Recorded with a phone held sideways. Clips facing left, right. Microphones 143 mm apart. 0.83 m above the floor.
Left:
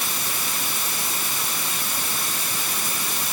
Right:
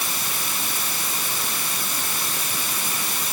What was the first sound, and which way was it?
Only background noise.